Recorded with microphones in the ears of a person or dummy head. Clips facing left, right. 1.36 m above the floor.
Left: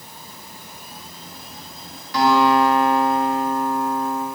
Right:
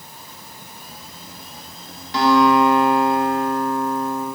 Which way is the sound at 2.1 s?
15° right (ahead or behind).